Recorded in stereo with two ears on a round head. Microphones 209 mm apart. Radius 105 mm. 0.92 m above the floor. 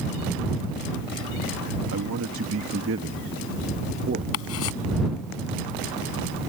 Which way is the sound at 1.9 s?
65° right (ahead or behind).